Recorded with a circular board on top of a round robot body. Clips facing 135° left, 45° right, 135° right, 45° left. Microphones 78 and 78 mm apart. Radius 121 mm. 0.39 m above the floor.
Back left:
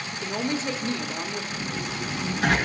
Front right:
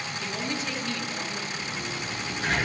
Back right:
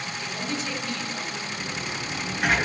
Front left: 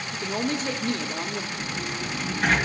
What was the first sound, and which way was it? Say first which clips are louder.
A woman speaking: back left 6 dB, front left 6 dB; 80° left.